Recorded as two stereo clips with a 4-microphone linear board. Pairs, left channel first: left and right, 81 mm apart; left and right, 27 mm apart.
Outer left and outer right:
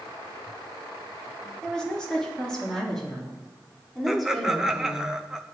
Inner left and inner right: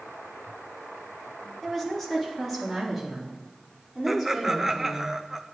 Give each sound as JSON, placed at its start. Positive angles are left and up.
{"t": 1.6, "sound": "a woman speaking", "side_deg": 10, "distance_m": 2.5}
{"t": 4.1, "sound": "laughter", "side_deg": -10, "distance_m": 1.2}